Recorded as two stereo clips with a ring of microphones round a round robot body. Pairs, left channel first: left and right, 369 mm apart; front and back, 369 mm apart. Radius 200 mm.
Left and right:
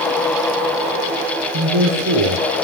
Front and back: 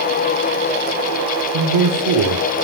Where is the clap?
No clap in this recording.